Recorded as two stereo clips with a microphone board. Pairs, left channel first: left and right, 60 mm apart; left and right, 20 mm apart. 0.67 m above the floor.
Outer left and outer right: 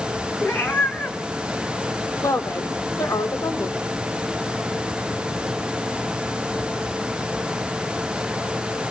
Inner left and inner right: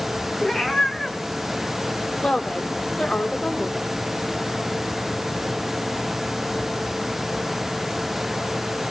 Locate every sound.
0.4 s a cat meowing: 35° left (ahead or behind), 2.5 m
2.2 s a woman speaking: 60° left (ahead or behind), 2.5 m